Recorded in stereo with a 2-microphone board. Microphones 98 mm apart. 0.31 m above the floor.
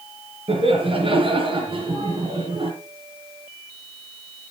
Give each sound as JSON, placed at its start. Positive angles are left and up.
{"t": 0.5, "sound": "laughter", "side_deg": -65, "distance_m": 5.0}